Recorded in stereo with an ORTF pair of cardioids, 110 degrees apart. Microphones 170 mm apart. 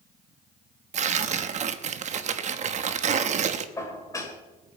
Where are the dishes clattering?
20° left, 3 m.